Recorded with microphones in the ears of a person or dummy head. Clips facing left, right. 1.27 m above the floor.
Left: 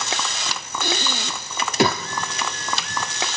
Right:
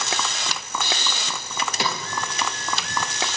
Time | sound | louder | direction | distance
0.8 | breathing | left 4 dB | 35° left (ahead or behind) | 0.9 m